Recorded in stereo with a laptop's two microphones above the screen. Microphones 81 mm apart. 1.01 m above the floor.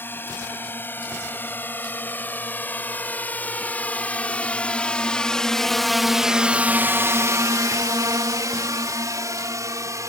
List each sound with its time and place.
0.0 s a drone: 25° left (ahead or behind); by 10.1 s 40° right (ahead or behind)